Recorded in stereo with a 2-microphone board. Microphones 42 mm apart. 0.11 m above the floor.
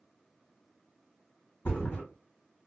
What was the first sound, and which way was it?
A thud, 65° left (ahead or behind).